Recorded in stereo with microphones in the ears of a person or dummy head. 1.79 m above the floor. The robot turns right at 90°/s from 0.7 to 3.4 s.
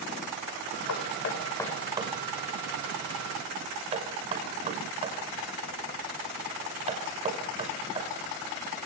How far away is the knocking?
About 6 m.